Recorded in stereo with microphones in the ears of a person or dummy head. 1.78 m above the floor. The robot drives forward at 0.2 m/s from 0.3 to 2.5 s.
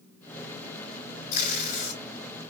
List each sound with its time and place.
1.3 s tape being pulled: 45° left (ahead or behind), 3 m